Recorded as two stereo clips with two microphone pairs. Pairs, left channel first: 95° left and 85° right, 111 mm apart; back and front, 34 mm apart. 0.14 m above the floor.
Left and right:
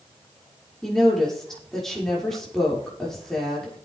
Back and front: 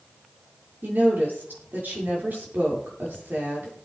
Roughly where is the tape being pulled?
No tape being pulled in this recording.